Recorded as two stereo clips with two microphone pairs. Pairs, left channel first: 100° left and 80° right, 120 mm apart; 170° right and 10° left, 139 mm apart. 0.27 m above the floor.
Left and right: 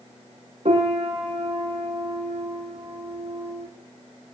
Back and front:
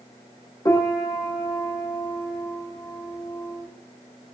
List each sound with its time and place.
0.7 s a piano: 105° right, 6.5 m